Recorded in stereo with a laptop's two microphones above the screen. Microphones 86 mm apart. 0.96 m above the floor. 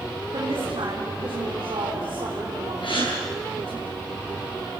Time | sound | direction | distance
0.3 | a woman speaking | 75° right (ahead or behind) | 3 m
2.8 | a gasp | 75° left (ahead or behind) | 8.5 m